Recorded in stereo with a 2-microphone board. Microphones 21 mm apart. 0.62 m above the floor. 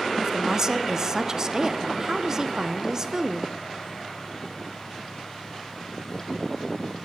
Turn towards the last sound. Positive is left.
turn(degrees=-25)  # may be behind; listen again after turning